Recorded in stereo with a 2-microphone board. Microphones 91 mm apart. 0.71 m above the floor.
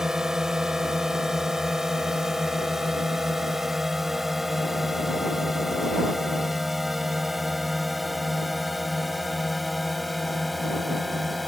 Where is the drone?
5° right (ahead or behind); by 11.5 s centre (ahead or behind).